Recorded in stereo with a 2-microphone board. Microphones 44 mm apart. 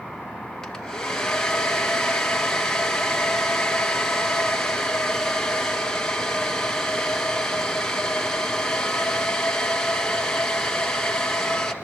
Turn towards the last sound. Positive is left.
turn(degrees=10)  # may be behind; listen again after turning